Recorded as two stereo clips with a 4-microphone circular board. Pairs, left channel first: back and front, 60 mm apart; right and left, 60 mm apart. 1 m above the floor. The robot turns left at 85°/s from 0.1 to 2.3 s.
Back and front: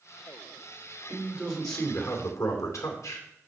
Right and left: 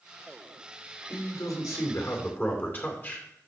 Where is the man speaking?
45° right, 2.5 m; by 3.3 s 150° right, 2.5 m.